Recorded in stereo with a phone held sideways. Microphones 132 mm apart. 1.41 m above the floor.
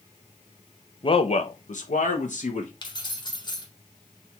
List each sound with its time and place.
1.0 s a man speaking: 40° left (ahead or behind), 0.6 m; by 2.7 s 65° left (ahead or behind), 1.3 m
2.8 s keys jangling: 35° left (ahead or behind), 1.3 m